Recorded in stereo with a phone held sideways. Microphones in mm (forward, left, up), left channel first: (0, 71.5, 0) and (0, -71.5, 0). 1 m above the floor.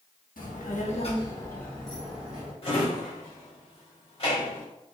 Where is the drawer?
40° left (ahead or behind), 1.4 m.